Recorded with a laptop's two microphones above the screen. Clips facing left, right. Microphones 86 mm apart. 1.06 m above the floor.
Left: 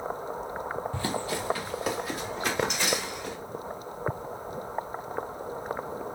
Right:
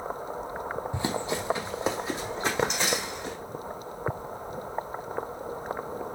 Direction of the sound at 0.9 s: 20° right (ahead or behind).